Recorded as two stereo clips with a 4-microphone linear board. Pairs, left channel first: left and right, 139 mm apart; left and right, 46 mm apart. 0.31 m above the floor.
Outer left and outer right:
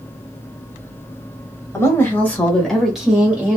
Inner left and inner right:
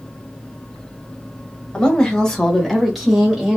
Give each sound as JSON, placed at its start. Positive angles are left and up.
{"t": 1.7, "sound": "a woman speaking", "side_deg": 20, "distance_m": 1.5}